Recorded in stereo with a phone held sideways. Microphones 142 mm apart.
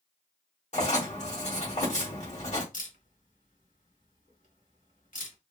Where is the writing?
60° left (ahead or behind), 1.5 m.